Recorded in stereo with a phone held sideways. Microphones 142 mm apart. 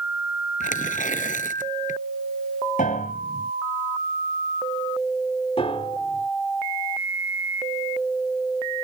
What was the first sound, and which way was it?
Tearing paper, 70° left (ahead or behind).